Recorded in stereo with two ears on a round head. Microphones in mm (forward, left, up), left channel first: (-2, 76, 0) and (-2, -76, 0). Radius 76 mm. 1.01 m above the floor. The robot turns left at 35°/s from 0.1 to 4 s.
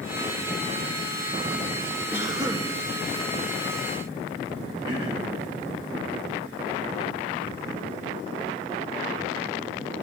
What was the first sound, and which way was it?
A cough, 10° right (ahead or behind).